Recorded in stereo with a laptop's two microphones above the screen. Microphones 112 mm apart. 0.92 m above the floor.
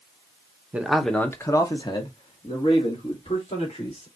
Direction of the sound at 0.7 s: 15° right (ahead or behind).